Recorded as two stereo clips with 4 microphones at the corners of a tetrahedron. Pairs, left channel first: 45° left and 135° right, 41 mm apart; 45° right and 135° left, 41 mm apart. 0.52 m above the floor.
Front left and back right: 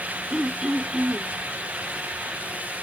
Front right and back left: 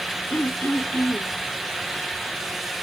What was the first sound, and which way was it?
Throat clearing, 60° right.